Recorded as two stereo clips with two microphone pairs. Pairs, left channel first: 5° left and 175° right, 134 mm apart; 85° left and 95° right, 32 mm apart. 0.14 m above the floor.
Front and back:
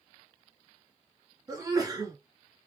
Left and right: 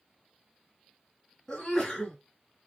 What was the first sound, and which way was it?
A sneeze, 160° left.